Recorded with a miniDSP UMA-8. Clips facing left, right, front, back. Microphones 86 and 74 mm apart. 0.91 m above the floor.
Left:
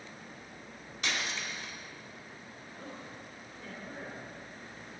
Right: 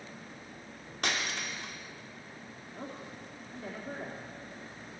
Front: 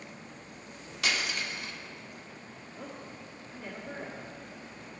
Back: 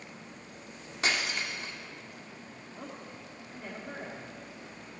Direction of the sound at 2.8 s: 110° right.